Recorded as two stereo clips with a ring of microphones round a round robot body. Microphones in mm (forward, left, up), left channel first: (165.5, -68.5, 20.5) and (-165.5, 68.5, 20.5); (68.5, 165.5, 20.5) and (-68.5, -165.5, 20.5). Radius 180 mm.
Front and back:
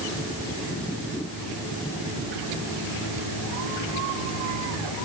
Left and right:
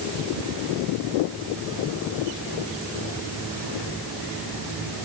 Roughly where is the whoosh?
No whoosh in this recording.